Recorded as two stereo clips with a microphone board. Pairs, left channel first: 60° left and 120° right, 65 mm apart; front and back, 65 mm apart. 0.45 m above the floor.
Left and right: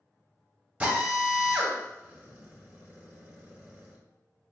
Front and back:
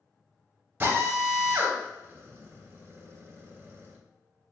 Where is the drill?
165° right, 1.1 m.